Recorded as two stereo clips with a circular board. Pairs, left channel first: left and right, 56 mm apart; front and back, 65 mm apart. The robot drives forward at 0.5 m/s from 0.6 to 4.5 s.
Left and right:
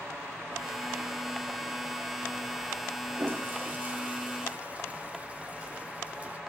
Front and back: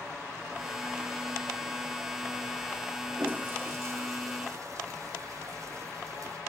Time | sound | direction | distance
3.1 | a toilet flushing | 120° right | 0.8 m